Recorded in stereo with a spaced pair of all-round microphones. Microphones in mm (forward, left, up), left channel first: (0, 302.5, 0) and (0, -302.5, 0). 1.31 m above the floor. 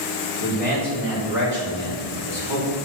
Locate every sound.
0.4 s a man speaking: 70° right (ahead or behind), 4.5 m; by 2.8 s 55° right (ahead or behind), 5 m